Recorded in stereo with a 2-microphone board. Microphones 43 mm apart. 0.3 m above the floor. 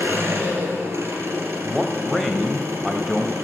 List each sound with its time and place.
0.0 s an engine running: 80° right, 2.5 m
1.6 s a man speaking: 5° right (ahead or behind), 1.3 m